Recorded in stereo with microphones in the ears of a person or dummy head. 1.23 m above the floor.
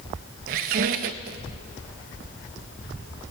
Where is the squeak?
50° right (ahead or behind), 0.6 m.